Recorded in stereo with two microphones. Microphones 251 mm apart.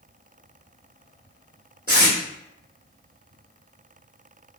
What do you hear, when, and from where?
1.9 s tape being pulled: 40° right (ahead or behind), 1.5 m